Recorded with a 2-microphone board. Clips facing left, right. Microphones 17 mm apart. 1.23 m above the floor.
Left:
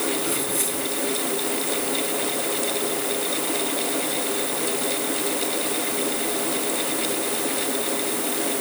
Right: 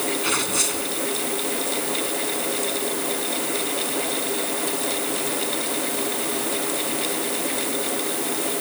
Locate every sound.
0.2 s tearing paper: 50° right (ahead or behind)